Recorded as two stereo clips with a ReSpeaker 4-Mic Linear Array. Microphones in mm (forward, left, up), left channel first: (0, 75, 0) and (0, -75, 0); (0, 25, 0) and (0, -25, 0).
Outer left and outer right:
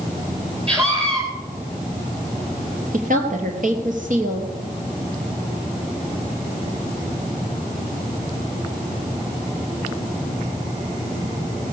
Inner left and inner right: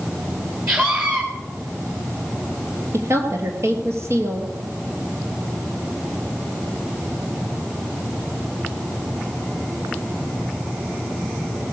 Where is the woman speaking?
60° right (ahead or behind), 3 m.